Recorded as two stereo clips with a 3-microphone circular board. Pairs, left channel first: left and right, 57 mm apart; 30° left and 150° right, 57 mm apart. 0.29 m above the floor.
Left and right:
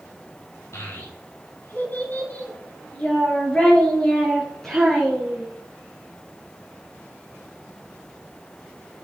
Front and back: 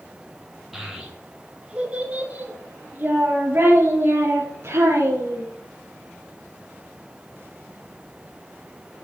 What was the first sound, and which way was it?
A child speaking, 125° left.